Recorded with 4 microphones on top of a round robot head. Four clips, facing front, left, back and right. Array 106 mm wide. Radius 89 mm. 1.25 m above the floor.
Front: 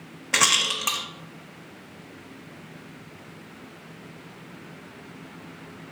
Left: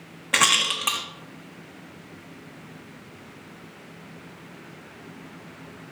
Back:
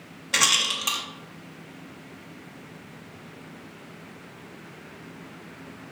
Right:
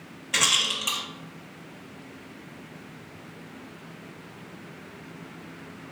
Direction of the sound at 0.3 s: 60° left.